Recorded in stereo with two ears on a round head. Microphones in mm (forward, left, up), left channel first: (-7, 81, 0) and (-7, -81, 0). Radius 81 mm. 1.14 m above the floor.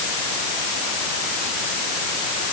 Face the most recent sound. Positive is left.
No sound to turn to.